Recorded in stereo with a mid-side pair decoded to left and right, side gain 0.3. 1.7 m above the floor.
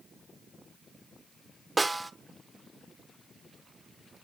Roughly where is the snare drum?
Ahead right.